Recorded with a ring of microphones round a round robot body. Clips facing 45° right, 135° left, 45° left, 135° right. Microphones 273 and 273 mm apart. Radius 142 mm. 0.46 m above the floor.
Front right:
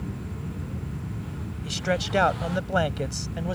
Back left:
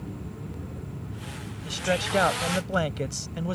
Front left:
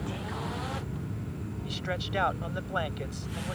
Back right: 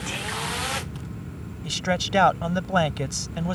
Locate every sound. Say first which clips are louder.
1.6 s a man speaking: even, back right 10 dB; 130° right; by 3.5 s 150° right